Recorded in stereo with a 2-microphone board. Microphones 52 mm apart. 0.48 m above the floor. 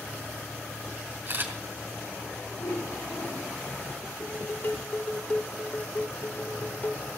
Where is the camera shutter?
40° right (ahead or behind), 4 m.